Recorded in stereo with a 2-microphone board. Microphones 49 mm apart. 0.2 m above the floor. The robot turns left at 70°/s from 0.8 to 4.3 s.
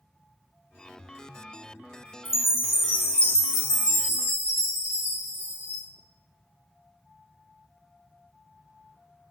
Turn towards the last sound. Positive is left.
turn(degrees=-45)